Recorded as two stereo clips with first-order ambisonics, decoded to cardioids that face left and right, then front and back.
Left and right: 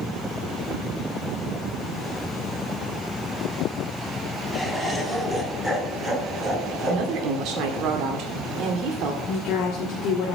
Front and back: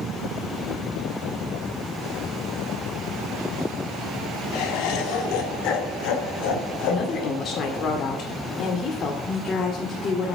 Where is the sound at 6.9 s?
55° right, 1.9 m.